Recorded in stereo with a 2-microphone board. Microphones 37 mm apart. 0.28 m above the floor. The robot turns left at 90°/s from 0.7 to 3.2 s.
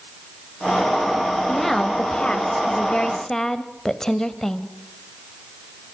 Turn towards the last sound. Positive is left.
turn(degrees=15)  # may be behind; listen again after turning